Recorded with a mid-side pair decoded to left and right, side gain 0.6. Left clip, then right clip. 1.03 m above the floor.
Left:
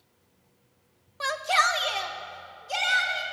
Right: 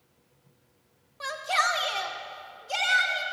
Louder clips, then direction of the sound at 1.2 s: Left 3 dB; 35° left.